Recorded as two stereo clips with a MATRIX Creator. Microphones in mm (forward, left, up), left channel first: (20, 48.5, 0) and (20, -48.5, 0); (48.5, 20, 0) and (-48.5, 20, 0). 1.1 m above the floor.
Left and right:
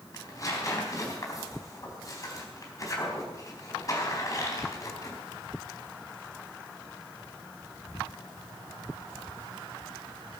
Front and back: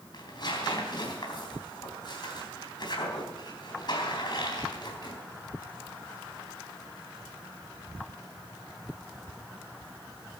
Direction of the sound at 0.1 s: 35° left.